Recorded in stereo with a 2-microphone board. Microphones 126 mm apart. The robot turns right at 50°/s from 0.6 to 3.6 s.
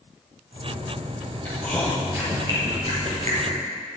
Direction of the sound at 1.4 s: 20° left (ahead or behind).